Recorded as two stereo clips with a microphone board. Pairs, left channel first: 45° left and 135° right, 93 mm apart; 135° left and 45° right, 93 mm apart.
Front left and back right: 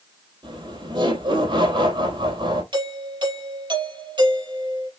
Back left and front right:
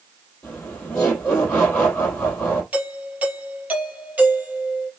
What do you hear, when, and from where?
0.4 s laughter: 150° right, 3.5 m
2.7 s a doorbell: 120° right, 3.5 m